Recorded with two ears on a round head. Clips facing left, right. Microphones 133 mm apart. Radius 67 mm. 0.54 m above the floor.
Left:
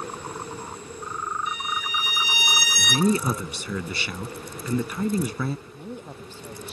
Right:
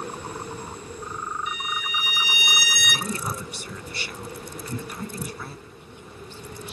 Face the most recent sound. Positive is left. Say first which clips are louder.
# left 7 dB
turn(degrees=35)  # may be behind; listen again after turning